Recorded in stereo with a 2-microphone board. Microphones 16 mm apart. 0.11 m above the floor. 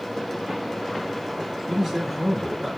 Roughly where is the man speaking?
Centre.